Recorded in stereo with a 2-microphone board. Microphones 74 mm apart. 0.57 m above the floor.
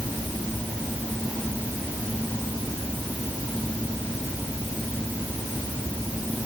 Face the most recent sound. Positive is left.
No sound to turn to.